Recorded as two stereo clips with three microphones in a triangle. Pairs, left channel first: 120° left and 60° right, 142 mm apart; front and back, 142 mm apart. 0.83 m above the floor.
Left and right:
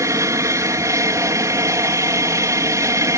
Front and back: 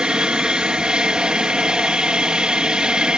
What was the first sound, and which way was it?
An aircraft, 100° right.